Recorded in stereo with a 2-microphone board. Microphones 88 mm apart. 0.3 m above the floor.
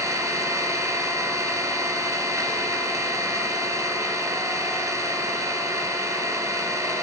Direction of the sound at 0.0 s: 35° right (ahead or behind).